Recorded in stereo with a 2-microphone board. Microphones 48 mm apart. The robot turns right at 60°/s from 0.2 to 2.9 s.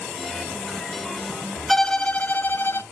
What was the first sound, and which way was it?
A violin, 10° left.